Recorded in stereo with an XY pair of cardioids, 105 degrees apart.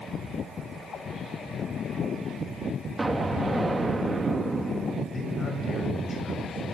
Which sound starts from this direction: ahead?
An explosion, at 3.0 s.